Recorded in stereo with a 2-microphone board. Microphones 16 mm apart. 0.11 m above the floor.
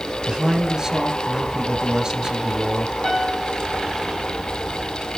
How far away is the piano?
About 5 m.